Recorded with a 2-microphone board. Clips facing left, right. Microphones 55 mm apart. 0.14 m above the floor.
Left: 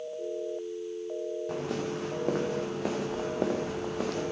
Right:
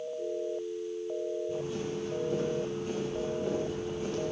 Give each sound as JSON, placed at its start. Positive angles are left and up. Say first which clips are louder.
{"t": 1.5, "sound": "footsteps", "louder": "left 1 dB", "side_deg": 70, "distance_m": 5.0}